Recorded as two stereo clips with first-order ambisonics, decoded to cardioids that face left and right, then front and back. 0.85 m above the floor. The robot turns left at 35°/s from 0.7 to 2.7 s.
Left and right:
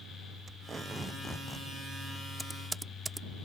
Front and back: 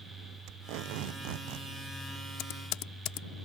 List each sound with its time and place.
0.5 s tape being pulled: 160° right; by 1.7 s 165° left
2.4 s typing on a keyboard: straight ahead; by 3.3 s 10° right